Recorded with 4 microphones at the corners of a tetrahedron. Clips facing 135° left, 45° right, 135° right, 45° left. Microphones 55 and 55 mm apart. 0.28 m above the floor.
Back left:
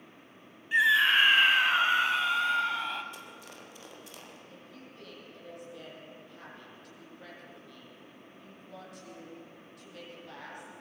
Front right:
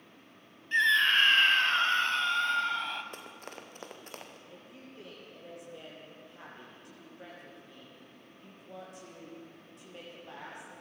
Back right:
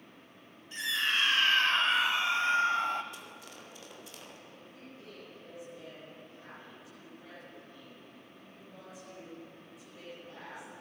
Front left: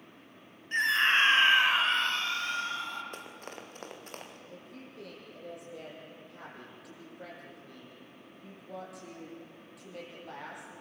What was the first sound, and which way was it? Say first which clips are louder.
A scream: back left 2 dB, front left 6 dB; 60° left.